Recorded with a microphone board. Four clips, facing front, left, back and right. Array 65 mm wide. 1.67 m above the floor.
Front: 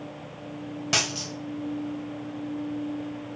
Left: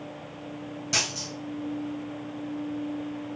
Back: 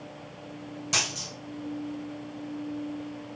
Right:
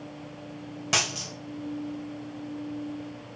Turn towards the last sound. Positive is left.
turn(degrees=-50)